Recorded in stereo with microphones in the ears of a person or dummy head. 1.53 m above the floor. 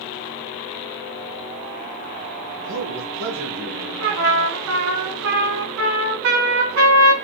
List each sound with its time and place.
2.6 s a man speaking: 70° right (ahead or behind), 2 m; by 3.9 s 85° right, 3.5 m
4.0 s a trumpet: 75° right (ahead or behind), 2.5 m